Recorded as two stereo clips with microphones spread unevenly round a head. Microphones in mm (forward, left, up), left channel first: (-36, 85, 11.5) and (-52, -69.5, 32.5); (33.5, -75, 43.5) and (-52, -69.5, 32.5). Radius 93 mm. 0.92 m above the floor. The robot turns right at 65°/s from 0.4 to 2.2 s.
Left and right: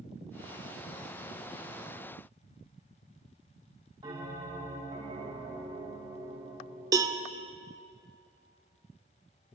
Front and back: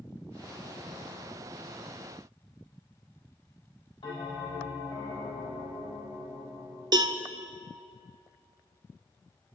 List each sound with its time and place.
4.0 s a bell: 30° right, 3.5 m
6.9 s a cowbell: 150° right, 0.7 m